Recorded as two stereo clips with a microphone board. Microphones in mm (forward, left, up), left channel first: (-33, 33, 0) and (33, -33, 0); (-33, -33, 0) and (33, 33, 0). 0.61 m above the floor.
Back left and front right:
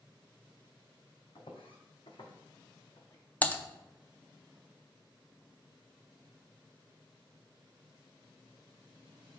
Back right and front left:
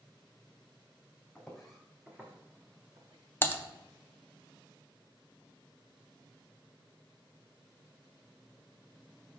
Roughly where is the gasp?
No gasp in this recording.